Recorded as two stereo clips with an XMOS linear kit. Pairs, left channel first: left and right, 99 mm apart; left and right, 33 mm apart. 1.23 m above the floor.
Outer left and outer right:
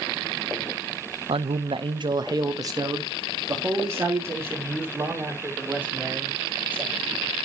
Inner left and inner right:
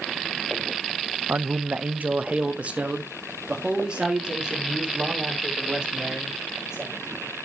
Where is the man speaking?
80° right, 0.6 m; by 7.3 s 20° right (ahead or behind), 4.5 m.